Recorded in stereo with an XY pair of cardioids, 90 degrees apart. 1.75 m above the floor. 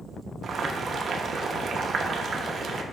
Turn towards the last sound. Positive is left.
turn(degrees=-55)